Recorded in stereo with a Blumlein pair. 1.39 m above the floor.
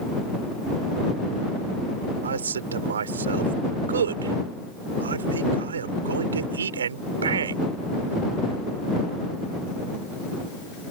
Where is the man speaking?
65° right.